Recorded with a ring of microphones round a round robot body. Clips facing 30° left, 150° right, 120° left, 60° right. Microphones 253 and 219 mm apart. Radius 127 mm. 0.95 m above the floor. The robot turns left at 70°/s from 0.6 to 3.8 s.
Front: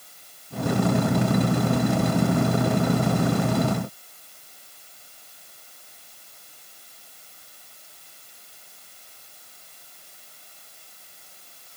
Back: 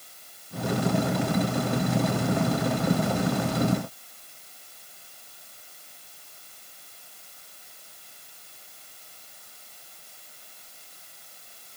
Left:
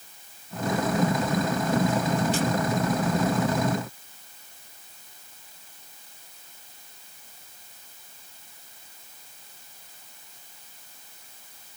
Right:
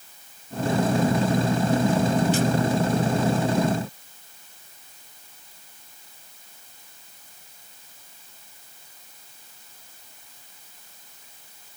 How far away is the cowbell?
I don't hear a cowbell.